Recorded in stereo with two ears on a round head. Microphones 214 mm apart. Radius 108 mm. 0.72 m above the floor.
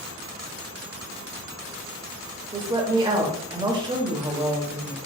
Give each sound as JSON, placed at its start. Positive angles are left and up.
{"t": 2.5, "sound": "a woman speaking", "side_deg": -20, "distance_m": 0.8}